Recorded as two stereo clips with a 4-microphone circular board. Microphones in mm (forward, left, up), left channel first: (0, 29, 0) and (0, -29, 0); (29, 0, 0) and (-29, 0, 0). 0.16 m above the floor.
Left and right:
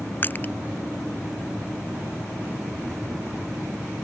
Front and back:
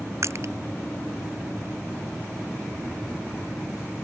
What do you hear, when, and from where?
0.2 s crushing: 145° left